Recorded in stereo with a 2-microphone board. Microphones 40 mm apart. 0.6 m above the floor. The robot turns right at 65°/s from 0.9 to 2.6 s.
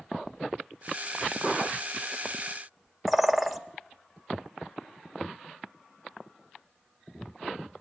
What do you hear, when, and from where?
3.1 s a bird: centre (ahead or behind), 0.6 m